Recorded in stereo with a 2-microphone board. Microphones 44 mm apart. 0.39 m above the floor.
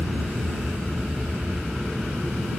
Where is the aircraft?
35° right (ahead or behind); by 2.6 s 30° right (ahead or behind).